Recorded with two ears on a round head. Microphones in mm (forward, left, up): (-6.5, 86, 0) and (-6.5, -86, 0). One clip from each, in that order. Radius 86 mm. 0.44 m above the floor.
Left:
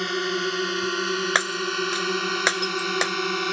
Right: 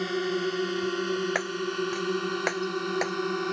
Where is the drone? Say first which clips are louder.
Left 3 dB; 35° left (ahead or behind); by 3.5 s 60° left (ahead or behind).